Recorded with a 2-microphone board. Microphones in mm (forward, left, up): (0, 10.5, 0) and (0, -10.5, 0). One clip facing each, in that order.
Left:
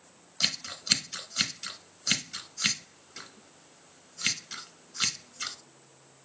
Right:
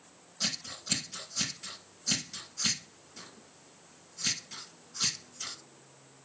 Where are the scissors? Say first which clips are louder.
Left 4 dB; 50° left (ahead or behind), 1.1 m.